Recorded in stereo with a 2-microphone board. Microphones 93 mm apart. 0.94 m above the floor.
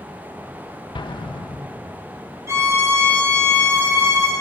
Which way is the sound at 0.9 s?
55° left (ahead or behind).